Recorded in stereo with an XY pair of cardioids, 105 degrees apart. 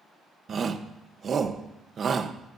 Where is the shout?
45° right, 1.0 m.